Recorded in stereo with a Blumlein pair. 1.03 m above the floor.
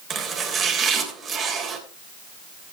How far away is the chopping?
About 3 m.